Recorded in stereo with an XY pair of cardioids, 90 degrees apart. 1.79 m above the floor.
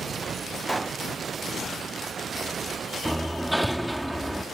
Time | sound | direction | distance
0.7 | a pop | 15° right | ?
3.0 | hammering | 5° right | ?